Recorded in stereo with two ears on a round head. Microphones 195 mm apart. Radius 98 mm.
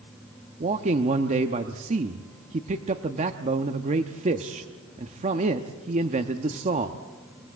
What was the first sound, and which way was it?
A man speaking, 30° right (ahead or behind).